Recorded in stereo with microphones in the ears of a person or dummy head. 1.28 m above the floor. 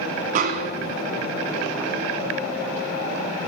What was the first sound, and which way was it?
A snare drum, 40° right (ahead or behind).